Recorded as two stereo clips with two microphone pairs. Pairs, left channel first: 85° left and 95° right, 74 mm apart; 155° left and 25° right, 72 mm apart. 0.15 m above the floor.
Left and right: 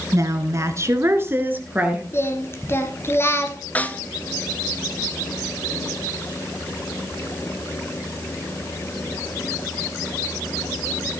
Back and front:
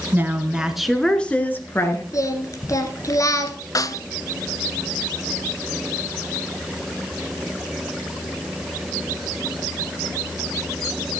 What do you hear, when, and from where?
0.1 s a woman speaking: 75° right, 1.7 m; by 2.0 s 165° right, 2 m
2.1 s singing: 130° left, 1.6 m
3.8 s a snare drum: 150° left, 0.6 m